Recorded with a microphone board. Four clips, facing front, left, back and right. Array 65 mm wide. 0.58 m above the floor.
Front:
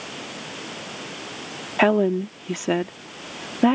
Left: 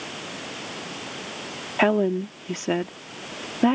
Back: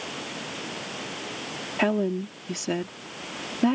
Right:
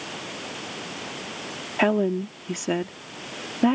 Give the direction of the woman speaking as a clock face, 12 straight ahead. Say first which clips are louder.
Left 1 dB, front 6 dB; 12 o'clock.